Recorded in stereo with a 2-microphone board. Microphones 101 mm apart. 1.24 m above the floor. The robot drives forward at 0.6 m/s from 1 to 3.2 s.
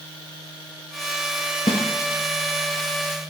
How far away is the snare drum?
About 1.2 m.